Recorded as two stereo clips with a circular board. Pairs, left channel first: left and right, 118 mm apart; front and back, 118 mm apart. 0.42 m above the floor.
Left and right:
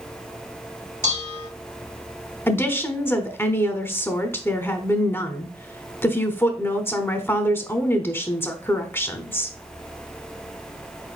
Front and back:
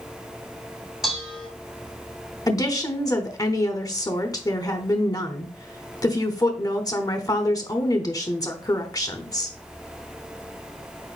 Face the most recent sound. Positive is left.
turn(degrees=35)